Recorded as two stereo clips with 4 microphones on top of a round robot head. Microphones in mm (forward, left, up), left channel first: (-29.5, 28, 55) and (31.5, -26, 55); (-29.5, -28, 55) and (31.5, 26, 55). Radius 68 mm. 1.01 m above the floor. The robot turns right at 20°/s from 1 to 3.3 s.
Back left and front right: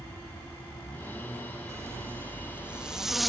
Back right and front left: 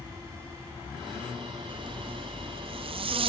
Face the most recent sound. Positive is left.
turn(degrees=50)